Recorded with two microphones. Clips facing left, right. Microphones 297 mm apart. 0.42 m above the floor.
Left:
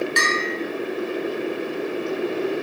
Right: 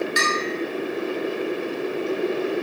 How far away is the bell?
About 0.7 m.